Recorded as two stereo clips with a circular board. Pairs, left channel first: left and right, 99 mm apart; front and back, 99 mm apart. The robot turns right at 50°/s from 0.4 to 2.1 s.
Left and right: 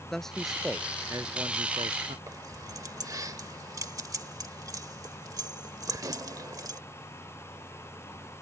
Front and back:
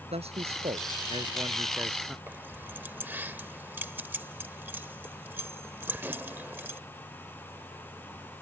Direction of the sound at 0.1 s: 175° left.